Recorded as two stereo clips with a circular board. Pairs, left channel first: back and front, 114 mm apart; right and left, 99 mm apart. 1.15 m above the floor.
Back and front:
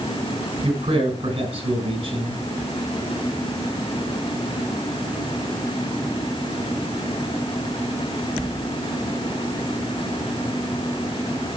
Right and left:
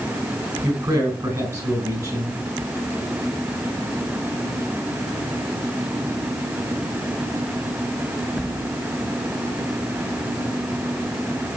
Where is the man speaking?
40° left, 5.5 m.